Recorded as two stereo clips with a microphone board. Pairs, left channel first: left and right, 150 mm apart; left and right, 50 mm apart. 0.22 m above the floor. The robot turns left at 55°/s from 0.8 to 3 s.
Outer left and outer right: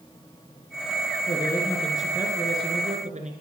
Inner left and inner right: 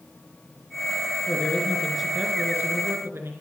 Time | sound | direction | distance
1.3 | a man speaking | 35° left | 3 m